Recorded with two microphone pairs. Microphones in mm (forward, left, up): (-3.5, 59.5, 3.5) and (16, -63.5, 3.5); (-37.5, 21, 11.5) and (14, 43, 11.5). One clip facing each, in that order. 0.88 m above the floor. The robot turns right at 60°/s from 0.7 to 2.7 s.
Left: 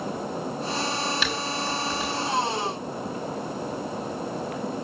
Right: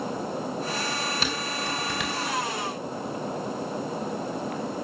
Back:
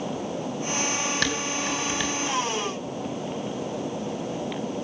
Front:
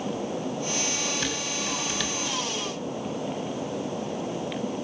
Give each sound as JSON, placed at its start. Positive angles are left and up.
{"t": 1.2, "sound": "dishes clattering", "azimuth_deg": -135, "distance_m": 4.0}